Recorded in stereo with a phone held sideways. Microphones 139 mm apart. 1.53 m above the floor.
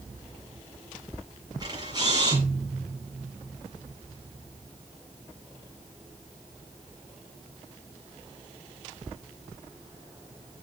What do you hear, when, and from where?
1.6 s a camera shutter: 30° right (ahead or behind), 7 m